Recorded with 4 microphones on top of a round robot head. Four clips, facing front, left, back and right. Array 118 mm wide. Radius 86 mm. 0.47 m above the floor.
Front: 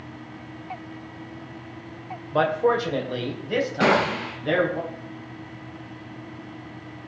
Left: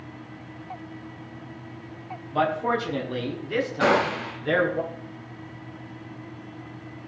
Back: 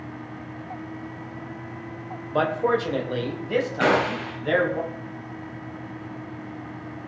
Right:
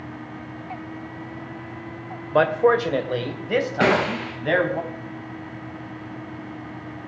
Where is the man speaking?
100° right, 1.8 m.